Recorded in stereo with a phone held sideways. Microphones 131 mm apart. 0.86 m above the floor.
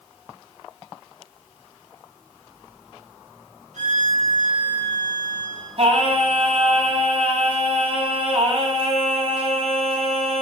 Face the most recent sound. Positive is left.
turn(degrees=-55)  # may be behind; listen again after turning